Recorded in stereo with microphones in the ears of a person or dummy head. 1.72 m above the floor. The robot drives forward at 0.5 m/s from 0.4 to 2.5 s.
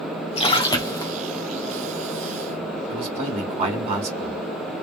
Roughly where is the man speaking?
Right.